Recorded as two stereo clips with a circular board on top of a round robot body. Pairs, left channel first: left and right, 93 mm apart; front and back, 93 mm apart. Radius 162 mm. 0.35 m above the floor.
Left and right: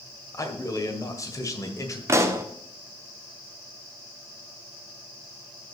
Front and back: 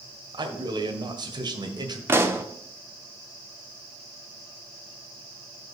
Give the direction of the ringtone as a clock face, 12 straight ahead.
No ringtone in this recording.